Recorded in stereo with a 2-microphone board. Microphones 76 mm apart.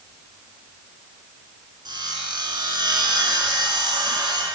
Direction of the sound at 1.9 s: 70° right (ahead or behind).